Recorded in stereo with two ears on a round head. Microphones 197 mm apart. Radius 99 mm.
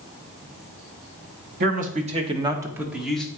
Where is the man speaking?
40° right (ahead or behind), 1.2 m; by 3.3 s 5° left (ahead or behind), 1.1 m.